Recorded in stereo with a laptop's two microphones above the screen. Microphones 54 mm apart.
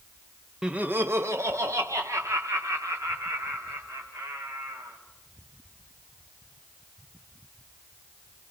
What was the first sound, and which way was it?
Laughter, 15° right (ahead or behind).